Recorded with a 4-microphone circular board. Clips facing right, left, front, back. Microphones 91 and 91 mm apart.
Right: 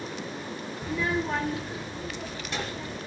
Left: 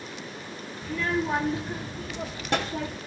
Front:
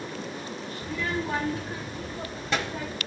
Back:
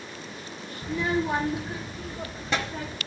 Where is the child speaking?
135° right, 0.5 m; by 3.0 s 90° left, 1.2 m.